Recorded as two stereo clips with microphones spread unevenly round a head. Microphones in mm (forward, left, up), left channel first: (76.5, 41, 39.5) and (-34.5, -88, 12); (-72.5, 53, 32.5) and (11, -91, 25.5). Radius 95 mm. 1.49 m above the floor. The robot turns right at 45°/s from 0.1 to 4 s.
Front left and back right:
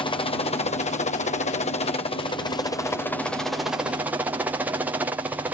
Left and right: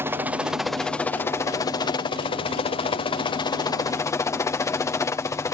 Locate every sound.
0.0 s a helicopter: straight ahead; by 5.5 s 175° left